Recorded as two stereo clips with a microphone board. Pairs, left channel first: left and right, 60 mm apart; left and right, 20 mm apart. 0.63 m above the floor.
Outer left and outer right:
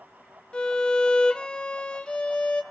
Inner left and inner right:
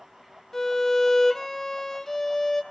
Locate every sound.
0.5 s a violin: 15° left (ahead or behind), 1.0 m